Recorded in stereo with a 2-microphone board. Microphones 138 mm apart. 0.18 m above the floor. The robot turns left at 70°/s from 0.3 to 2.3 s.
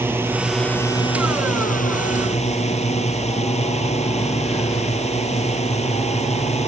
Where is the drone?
165° right; by 6.7 s 55° left.